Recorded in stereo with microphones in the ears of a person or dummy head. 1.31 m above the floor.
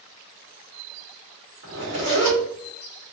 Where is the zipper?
65° right (ahead or behind), 2 m.